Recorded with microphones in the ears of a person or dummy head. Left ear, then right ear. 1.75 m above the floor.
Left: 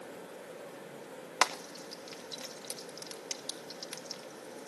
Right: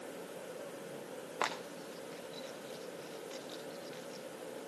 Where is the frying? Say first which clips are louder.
Left 7 dB; 70° left (ahead or behind), 3 m.